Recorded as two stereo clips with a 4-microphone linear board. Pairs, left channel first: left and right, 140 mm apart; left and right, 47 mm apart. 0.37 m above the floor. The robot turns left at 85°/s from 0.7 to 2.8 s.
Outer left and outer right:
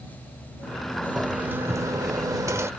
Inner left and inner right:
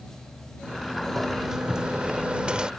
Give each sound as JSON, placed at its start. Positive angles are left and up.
{"t": 0.6, "sound": "a sliding door", "side_deg": 15}